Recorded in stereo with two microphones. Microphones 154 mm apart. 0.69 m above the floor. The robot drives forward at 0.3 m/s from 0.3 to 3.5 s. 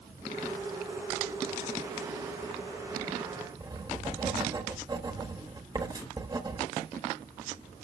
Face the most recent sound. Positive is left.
turn(degrees=-25)  # may be behind; listen again after turning